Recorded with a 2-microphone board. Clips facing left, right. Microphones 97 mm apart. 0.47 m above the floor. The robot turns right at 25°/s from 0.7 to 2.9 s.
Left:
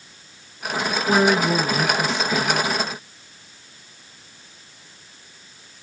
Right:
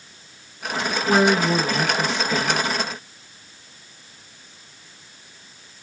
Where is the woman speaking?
170° right, 0.8 m; by 2.7 s 130° right, 0.8 m.